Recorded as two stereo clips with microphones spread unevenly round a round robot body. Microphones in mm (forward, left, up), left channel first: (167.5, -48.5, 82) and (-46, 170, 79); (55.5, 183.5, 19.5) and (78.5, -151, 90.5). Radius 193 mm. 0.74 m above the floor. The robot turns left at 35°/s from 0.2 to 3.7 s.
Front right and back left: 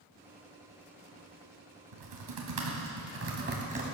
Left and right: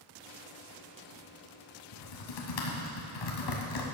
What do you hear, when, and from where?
1.9 s typing on a keyboard: 130° left, 2.5 m; by 3.9 s 70° left, 2.5 m